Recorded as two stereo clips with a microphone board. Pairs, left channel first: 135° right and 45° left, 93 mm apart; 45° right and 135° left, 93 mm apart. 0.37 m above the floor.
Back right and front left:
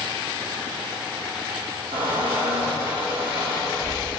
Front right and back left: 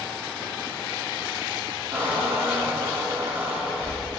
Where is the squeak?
70° left, 3.5 m.